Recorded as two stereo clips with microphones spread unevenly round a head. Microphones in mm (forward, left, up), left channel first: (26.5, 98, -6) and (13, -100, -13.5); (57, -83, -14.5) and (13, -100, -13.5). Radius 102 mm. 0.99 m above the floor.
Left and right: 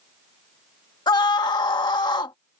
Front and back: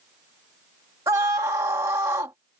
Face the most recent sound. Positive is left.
turn(degrees=160)